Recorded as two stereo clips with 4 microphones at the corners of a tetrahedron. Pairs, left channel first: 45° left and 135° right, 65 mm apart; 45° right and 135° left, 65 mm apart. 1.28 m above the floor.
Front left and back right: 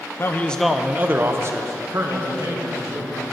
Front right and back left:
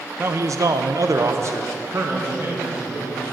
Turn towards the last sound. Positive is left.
turn(degrees=-165)